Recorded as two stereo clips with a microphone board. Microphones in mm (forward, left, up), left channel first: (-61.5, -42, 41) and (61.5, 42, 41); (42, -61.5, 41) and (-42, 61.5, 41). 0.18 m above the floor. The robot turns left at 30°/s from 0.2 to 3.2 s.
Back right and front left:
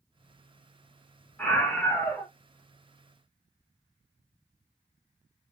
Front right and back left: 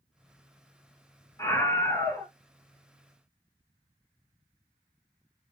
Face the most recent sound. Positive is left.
turn(degrees=-135)